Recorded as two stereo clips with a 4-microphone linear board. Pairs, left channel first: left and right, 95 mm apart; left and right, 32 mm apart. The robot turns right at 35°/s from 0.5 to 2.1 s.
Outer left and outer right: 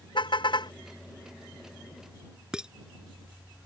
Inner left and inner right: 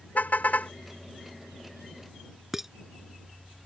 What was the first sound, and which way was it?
A car horn, 55° left (ahead or behind).